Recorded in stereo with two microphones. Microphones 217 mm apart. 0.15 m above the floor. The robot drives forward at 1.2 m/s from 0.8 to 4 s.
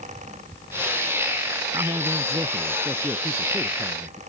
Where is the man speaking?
20° right (ahead or behind); by 4.2 s 10° right (ahead or behind).